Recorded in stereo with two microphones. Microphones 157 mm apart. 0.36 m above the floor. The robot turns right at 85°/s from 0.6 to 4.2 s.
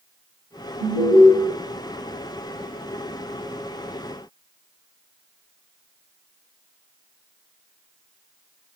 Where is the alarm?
20° right (ahead or behind), 1.1 m; by 1.3 s 25° right (ahead or behind), 1.1 m.